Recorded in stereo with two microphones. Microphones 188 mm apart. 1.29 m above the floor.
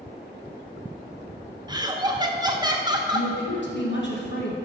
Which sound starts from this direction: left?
A woman speaking, at 3.1 s.